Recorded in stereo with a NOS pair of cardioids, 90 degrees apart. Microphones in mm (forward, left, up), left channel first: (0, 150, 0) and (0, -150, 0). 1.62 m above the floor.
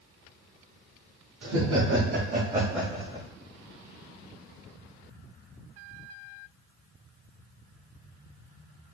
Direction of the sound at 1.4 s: 60° right.